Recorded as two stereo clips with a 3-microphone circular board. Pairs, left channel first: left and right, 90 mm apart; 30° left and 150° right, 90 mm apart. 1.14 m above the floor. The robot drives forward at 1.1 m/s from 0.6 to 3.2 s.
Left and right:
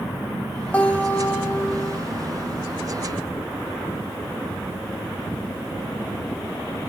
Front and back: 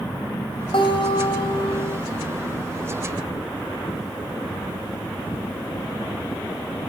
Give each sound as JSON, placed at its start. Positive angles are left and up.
{"t": 0.7, "sound": "a guitar", "azimuth_deg": 15, "distance_m": 3.5}